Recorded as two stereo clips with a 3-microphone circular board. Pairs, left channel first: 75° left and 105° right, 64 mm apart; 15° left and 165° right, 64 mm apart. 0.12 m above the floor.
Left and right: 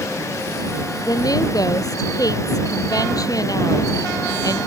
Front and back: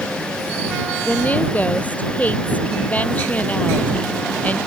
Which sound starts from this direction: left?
A woman speaking, at 1.0 s.